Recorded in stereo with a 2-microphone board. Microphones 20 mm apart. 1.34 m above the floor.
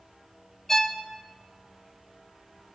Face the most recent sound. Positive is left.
turn(degrees=20)  # may be behind; listen again after turning